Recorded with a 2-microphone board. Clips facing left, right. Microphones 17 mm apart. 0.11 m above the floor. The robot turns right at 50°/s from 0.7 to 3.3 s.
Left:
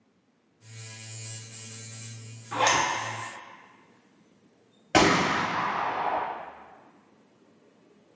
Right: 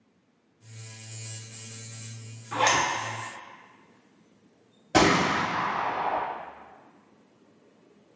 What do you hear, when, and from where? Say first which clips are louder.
2.5 s a zipper: even; 20° right (ahead or behind), 1.3 m; by 2.8 s 30° right (ahead or behind), 1.3 m
4.9 s a gunshot: even; 50° left (ahead or behind), 1.1 m